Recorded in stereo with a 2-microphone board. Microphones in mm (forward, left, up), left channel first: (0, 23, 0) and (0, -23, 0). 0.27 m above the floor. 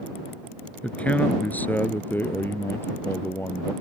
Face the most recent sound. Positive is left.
turn(degrees=55)  # may be behind; listen again after turning